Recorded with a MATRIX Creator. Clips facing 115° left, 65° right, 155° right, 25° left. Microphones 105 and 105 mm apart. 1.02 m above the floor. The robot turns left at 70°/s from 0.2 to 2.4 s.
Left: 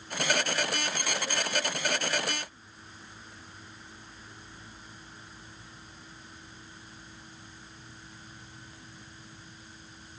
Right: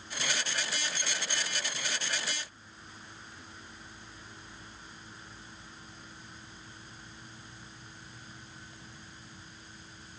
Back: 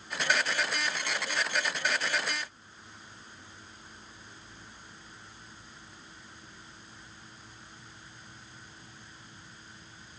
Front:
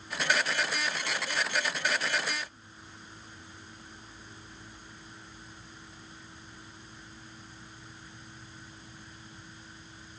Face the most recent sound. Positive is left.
No sound to turn to.